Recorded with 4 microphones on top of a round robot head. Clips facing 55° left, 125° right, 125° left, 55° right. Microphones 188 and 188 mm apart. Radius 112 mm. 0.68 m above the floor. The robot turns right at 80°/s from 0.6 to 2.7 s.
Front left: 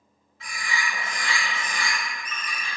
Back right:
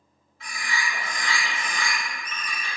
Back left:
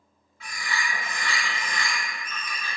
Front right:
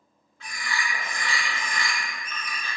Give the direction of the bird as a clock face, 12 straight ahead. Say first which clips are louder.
Even, even; 11 o'clock.